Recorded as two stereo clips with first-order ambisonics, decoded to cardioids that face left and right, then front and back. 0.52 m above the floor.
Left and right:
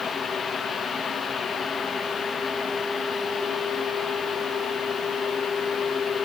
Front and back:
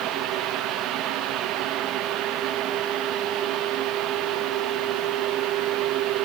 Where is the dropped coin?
I don't hear a dropped coin.